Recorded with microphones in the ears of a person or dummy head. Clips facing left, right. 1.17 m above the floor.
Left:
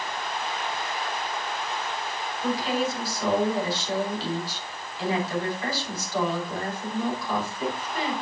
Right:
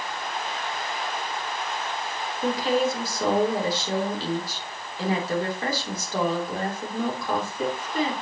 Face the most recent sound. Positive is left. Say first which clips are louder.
# right 3 dB
turn(degrees=-45)  # may be behind; listen again after turning